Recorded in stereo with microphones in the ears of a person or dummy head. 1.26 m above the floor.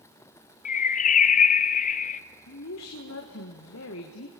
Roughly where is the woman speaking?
Left.